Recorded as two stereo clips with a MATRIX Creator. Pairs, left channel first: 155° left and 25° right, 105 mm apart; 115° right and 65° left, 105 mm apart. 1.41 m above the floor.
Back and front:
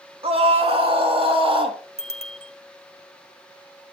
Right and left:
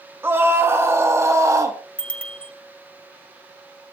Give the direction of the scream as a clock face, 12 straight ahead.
12 o'clock.